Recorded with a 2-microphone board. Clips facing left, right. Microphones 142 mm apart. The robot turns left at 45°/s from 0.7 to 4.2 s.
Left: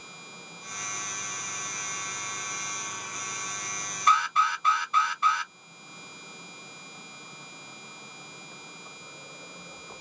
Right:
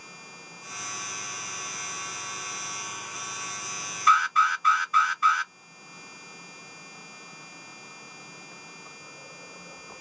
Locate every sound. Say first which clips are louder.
4.1 s an alarm: right 1 dB; 30° left (ahead or behind), 1.0 m; by 5.5 s 25° left (ahead or behind), 1.0 m